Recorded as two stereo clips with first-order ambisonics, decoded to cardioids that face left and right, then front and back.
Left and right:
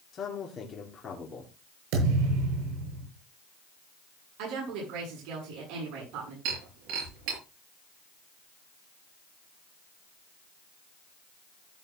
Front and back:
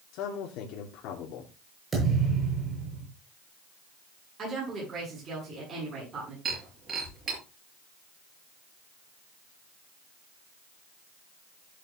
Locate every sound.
0.1 s a man speaking: 25° left, 2.5 m
1.9 s a thud: 110° right, 8 m
4.4 s a woman speaking: 115° right, 9 m
6.5 s breaking glass: 115° right, 7.5 m